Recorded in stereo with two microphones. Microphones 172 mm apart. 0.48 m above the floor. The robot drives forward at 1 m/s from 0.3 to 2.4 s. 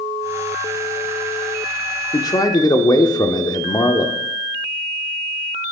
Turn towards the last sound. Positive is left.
turn(degrees=20)  # may be behind; listen again after turning